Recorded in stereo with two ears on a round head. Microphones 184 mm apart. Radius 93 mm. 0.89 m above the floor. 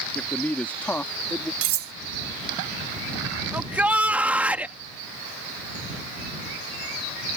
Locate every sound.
0.1 s a man speaking: 10° left (ahead or behind)
1.6 s cutlery clinking: 70° right (ahead or behind)
3.5 s a shout: 10° right (ahead or behind)